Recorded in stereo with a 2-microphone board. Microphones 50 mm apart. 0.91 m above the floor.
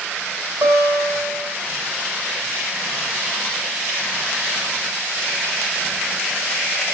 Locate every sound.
0.6 s a guitar: 75° right (ahead or behind), 7 m